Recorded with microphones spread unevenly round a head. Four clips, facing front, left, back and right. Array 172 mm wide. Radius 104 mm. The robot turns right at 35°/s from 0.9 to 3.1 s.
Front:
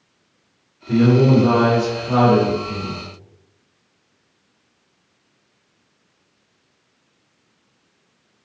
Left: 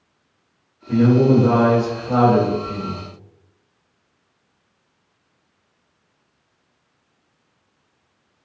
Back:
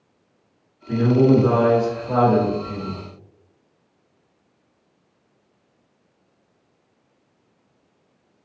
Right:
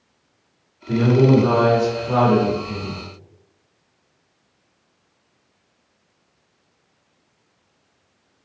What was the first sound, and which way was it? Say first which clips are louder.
A man speaking: left 1 dB, front 2 dB; 105° right.